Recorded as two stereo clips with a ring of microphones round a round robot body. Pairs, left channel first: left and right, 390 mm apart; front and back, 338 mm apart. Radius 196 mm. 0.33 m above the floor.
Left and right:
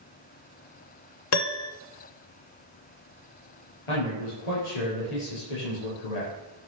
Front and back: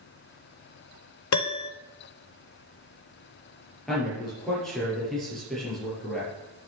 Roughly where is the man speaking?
Left.